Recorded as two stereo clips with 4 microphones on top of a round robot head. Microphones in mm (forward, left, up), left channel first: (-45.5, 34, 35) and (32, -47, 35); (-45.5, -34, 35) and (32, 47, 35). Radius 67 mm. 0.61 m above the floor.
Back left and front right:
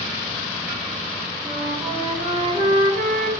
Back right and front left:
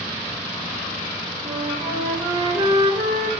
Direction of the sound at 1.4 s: 10° right.